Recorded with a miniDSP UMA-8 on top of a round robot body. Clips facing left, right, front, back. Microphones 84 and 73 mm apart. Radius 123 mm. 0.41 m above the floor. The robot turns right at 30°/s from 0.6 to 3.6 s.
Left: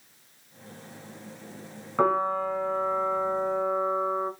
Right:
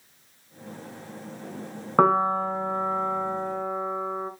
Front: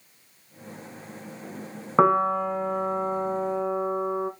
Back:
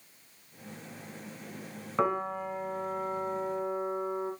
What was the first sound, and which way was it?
A piano, 45° right.